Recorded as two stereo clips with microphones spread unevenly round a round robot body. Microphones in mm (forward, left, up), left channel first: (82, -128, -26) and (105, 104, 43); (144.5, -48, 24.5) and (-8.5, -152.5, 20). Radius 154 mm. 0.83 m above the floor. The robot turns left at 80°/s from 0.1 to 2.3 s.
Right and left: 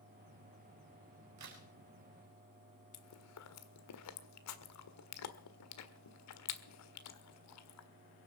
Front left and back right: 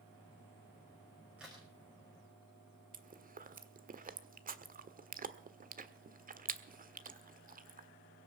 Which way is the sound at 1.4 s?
130° left.